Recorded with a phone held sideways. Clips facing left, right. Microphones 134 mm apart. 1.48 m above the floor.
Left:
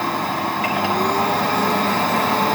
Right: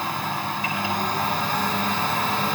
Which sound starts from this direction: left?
A machine running, at 0.0 s.